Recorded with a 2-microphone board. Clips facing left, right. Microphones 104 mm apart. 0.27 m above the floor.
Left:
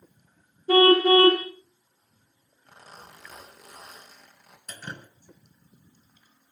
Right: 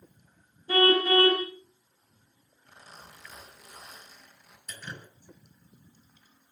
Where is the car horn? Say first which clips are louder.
Left 6 dB; 60° left (ahead or behind), 9 m.